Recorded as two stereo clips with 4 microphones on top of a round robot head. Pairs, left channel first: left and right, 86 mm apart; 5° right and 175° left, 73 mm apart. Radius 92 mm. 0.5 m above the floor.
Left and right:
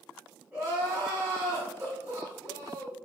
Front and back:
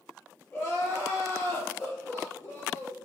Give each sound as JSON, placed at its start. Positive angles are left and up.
{"t": 0.5, "sound": "crying", "azimuth_deg": -45, "distance_m": 1.7}